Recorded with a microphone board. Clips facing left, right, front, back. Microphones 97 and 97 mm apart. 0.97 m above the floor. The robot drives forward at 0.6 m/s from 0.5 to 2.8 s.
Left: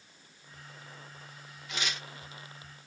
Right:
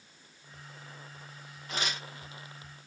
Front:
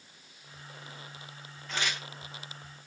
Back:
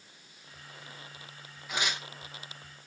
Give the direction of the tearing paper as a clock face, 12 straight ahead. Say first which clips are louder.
Right 2 dB, back 1 dB; 3 o'clock.